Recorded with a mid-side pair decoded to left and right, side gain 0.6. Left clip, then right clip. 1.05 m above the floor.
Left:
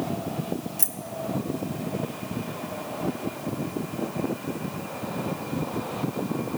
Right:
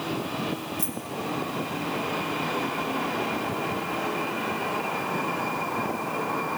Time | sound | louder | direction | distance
0.8 | keys jangling | right 1 dB | 45° left | 1.1 m